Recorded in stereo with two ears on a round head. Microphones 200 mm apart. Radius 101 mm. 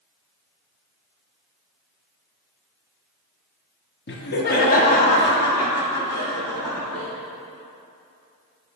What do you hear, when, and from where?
4.1 s laughter: 50° left (ahead or behind), 0.9 m; by 7.1 s 5° left (ahead or behind), 1.9 m